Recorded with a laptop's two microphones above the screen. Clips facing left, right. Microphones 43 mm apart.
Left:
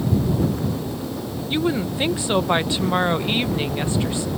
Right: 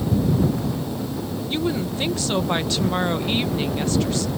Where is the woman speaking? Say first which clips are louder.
Left 3 dB; 20° left (ahead or behind).